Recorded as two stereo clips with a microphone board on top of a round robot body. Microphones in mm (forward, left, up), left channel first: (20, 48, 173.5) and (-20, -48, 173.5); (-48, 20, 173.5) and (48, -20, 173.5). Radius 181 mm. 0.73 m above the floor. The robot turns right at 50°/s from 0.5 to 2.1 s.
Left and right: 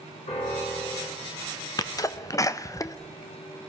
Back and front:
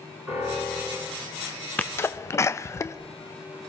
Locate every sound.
0.3 s a piano: 50° left, 5 m; by 1.2 s 85° left, 5 m
1.8 s a sneeze: 95° left, 0.5 m; by 3.0 s 110° left, 0.5 m